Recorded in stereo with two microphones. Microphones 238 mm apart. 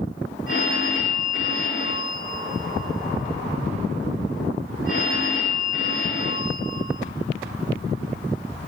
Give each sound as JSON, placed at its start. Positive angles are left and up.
{"t": 0.5, "sound": "a phone ringing", "side_deg": 55, "distance_m": 5.5}